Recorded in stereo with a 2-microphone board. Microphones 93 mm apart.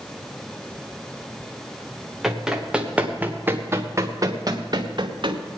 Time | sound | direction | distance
2.2 | running footsteps | 5° right (ahead or behind) | 1.9 m